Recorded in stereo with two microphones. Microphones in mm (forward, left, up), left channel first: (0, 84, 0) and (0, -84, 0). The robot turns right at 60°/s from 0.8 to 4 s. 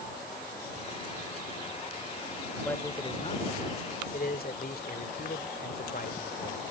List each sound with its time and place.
2.6 s a man speaking: 10° left; by 6.6 s 90° left